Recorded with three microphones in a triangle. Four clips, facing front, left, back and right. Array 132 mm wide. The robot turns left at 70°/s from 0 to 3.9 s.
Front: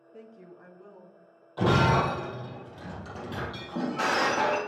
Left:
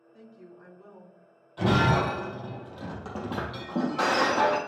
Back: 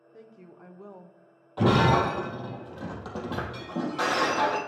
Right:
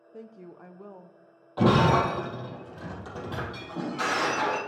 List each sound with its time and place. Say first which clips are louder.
0.1 s a woman speaking: right 5 dB, front 1 dB; 80° right, 0.9 m; by 1.2 s 150° right, 0.9 m
1.6 s breaking glass: right 3 dB, back 2 dB; 115° right, 3.5 m; by 4.6 s 85° left, 3.5 m